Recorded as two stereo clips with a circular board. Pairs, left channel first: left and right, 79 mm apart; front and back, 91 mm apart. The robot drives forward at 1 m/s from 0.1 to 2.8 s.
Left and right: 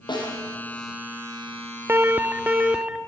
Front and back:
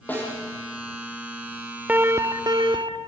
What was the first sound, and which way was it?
A snare drum, 70° left.